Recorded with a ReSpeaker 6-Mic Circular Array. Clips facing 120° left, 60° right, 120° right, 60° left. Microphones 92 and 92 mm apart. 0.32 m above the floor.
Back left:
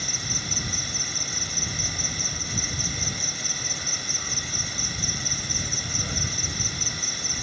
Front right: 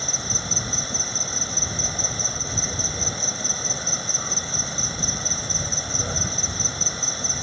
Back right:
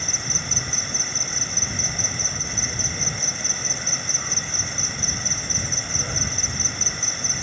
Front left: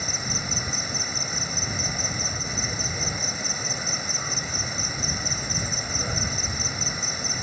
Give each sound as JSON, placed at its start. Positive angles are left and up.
{"t": 0.0, "sound": "an insect", "azimuth_deg": -20}